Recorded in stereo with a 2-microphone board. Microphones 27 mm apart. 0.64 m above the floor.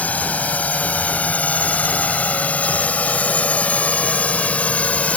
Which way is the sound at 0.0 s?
70° left (ahead or behind).